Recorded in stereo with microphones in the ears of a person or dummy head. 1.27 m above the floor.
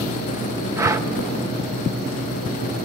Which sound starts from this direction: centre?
Breathing, at 0.8 s.